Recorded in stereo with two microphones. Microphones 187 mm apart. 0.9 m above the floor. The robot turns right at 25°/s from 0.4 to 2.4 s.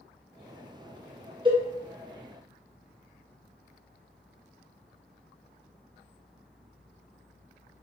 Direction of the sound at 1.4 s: 25° right (ahead or behind).